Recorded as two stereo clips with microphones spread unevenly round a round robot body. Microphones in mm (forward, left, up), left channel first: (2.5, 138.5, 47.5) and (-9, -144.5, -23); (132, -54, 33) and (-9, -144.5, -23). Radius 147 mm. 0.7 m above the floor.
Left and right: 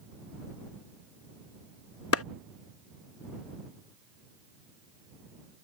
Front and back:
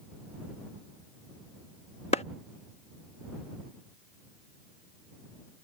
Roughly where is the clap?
Left.